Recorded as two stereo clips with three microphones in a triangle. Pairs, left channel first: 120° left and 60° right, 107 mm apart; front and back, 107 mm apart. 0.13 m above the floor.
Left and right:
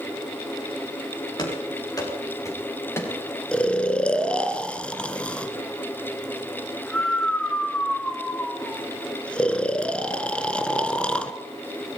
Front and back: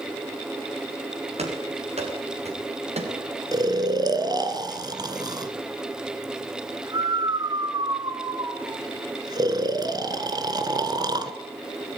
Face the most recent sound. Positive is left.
turn(degrees=-165)